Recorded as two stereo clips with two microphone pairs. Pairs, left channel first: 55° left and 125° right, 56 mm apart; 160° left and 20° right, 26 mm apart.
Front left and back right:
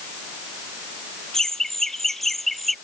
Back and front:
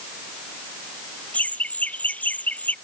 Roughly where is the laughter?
Behind left.